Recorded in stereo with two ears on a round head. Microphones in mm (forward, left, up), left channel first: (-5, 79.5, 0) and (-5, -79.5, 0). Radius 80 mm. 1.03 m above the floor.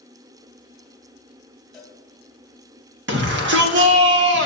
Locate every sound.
1.7 s a cowbell: centre (ahead or behind), 4 m
3.1 s a shout: 70° right (ahead or behind), 2 m